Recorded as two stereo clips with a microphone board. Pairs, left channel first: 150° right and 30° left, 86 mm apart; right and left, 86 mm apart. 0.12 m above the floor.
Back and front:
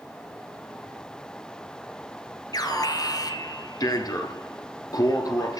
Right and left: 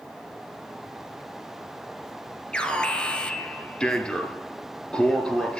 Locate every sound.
2.5 s an alarm: 165° right, 2.5 m